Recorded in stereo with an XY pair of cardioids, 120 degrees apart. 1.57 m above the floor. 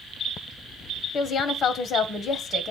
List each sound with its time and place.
1.1 s a woman speaking: 50° left, 1.2 m